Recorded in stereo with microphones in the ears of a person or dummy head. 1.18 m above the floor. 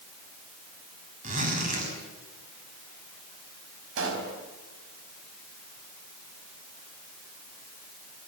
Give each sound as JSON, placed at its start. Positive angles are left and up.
{"t": 1.2, "sound": "a zipper", "side_deg": -40, "distance_m": 6.5}
{"t": 4.0, "sound": "a pop", "side_deg": -75, "distance_m": 5.0}